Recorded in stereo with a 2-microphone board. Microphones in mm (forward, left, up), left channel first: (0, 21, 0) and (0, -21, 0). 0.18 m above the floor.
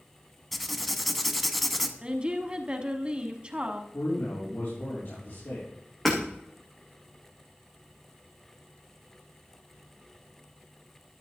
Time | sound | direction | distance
0.5 | writing | 5° left (ahead or behind) | 0.8 m
2.0 | a woman speaking | 20° right (ahead or behind) | 1.2 m
3.9 | a man speaking | 65° left (ahead or behind) | 6 m
6.0 | hammering | 5° left (ahead or behind) | 3.5 m